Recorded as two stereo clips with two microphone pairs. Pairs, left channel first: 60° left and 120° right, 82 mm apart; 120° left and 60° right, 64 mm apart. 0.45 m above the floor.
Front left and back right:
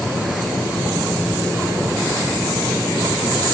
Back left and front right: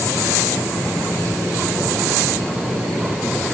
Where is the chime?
No chime in this recording.